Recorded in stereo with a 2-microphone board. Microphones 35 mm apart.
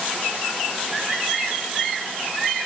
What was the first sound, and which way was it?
Only background noise.